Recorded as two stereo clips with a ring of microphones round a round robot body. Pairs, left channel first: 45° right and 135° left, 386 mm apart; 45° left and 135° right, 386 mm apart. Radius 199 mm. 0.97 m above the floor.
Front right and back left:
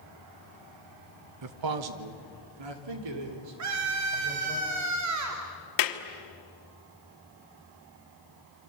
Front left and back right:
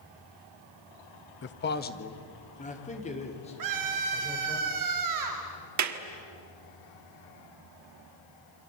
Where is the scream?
175° right, 2 m.